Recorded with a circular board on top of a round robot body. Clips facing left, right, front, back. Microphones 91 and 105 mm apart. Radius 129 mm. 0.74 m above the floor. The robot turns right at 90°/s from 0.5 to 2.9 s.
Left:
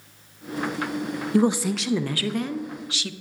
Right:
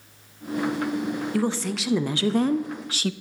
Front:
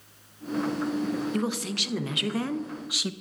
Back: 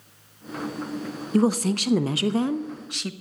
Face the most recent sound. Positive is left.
turn(degrees=-80)